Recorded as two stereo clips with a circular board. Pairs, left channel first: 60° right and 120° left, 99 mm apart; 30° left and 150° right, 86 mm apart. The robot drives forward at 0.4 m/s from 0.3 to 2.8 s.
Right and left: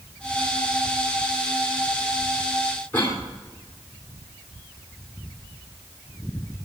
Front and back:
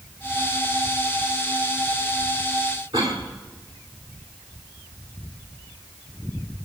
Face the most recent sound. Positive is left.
turn(degrees=-130)